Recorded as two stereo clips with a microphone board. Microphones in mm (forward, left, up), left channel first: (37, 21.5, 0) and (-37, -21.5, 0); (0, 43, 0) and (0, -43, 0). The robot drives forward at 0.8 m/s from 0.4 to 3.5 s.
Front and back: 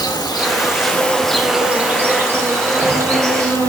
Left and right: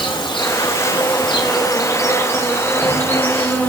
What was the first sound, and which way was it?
An insect, 65° left.